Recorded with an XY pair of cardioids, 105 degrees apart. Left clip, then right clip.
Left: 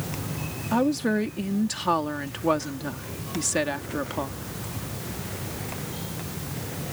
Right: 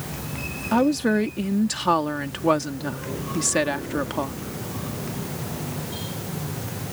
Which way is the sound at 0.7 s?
20° right.